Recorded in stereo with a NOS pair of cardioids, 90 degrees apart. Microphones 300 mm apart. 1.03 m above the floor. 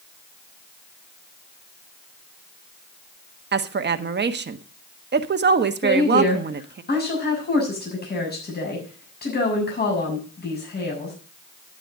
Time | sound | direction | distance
3.5 | a woman speaking | 35° right | 1.3 m
5.8 | a woman speaking | 30° left | 7 m